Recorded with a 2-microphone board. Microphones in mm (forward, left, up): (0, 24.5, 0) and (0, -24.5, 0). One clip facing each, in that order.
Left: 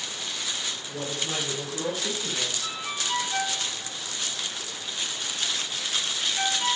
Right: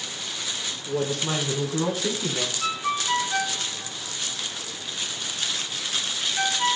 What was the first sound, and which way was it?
A woman speaking, 65° right (ahead or behind).